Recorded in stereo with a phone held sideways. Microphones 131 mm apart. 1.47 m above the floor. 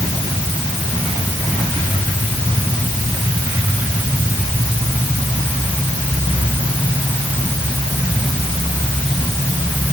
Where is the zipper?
I don't hear a zipper.